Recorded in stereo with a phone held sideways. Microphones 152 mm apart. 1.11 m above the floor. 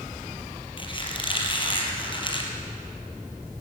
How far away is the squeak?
About 4 m.